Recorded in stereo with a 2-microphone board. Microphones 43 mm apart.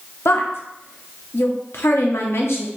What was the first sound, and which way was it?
A woman speaking, 65° left (ahead or behind).